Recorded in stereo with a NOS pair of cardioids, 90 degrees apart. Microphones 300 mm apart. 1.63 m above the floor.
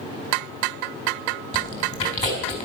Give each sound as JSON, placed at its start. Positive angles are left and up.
{"t": 1.5, "sound": "chewing", "azimuth_deg": 25, "distance_m": 5.0}